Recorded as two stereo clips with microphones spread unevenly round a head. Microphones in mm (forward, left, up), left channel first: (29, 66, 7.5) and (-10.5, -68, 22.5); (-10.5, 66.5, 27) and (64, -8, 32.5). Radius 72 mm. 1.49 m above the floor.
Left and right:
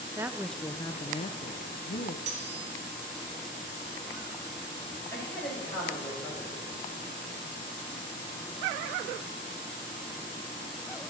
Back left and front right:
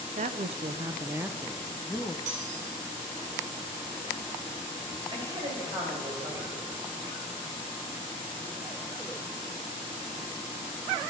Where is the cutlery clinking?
70° right, 2.5 m.